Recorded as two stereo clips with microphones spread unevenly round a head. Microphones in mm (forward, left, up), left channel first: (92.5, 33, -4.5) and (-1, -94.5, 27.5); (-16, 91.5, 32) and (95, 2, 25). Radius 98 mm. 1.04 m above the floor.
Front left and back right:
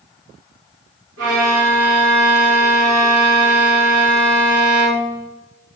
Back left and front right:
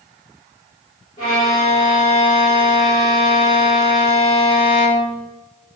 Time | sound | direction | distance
1.2 | a violin | 155° right | 1.2 m